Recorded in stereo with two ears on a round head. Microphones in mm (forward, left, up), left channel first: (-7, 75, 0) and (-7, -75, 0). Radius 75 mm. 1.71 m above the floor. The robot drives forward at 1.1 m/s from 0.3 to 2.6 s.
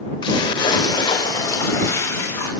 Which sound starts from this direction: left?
A splash, at 0.2 s.